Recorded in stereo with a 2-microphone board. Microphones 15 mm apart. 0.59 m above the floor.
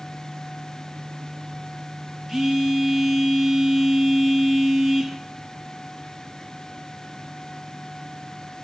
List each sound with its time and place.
2.3 s a phone buzzing: 25° right (ahead or behind), 3.5 m